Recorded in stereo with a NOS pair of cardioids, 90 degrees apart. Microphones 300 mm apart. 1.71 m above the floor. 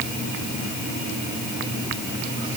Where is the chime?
I don't hear a chime.